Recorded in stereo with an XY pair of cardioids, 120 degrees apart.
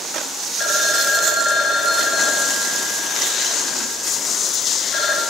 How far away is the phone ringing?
About 6 m.